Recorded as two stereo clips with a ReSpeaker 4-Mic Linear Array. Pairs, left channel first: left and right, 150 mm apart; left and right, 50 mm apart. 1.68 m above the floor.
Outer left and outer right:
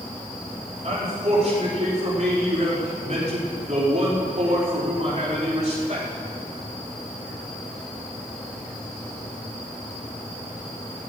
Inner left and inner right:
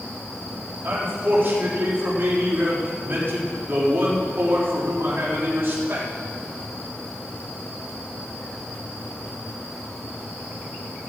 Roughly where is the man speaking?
Right.